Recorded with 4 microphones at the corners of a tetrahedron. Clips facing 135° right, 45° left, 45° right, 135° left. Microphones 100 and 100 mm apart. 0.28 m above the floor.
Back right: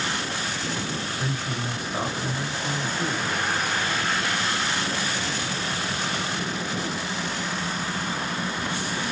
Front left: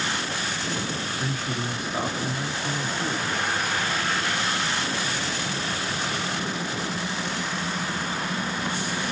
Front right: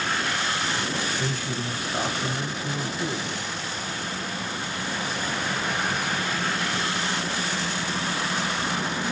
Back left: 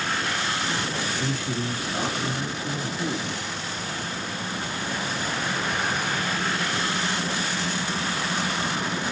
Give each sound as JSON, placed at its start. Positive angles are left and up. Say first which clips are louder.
{"t": 1.2, "sound": "a man speaking", "louder": "even, back left 1 dB", "azimuth_deg": -70, "distance_m": 1.2}